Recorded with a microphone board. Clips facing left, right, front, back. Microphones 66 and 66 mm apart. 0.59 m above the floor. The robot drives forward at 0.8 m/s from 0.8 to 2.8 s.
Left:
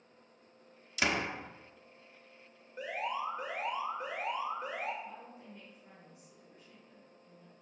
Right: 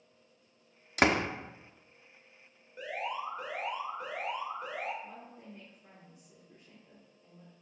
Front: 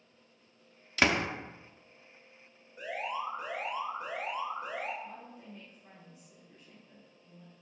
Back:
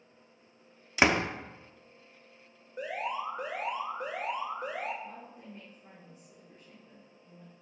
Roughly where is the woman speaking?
Behind right.